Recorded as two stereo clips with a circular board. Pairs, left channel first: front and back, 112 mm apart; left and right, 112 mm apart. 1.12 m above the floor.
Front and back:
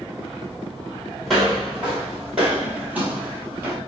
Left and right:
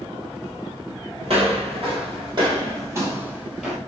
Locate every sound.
1.2 s footsteps: 90° right, 2.0 m; by 3.8 s straight behind, 1.2 m